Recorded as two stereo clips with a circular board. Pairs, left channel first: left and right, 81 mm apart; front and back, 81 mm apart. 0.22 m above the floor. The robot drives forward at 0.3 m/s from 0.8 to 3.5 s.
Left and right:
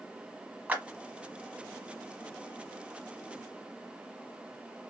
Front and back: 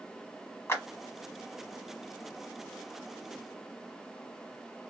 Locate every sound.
0.7 s a clap: 35° right, 1.0 m